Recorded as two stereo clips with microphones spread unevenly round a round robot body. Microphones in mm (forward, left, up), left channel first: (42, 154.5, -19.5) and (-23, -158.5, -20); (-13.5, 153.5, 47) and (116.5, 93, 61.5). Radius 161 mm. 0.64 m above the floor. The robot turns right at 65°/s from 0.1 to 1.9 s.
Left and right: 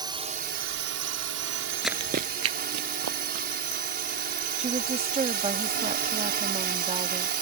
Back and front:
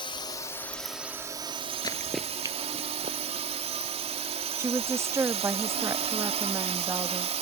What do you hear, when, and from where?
0.0 s a drone: 175° right; by 7.4 s 55° right
1.8 s running footsteps: 160° left; by 3.5 s 75° right
4.6 s a woman speaking: 75° right